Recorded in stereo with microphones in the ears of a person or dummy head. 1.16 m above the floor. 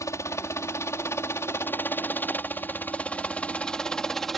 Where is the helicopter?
10° left (ahead or behind); by 4.4 s centre (ahead or behind).